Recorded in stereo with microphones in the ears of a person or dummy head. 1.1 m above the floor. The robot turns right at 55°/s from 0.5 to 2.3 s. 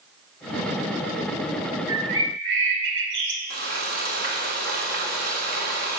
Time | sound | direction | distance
1.9 | a bird | 80° right | 2.0 m
3.5 | frying | 60° right (ahead or behind) | 3 m